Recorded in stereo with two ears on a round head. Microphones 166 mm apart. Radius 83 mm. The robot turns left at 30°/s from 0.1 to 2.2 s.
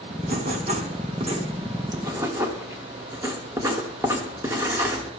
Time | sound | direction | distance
0.2 | writing | 95° right | 1.3 m